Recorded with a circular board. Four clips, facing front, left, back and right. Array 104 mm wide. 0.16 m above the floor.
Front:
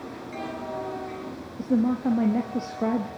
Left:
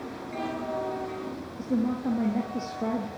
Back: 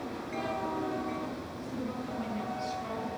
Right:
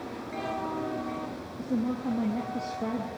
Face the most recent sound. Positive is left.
turn(degrees=10)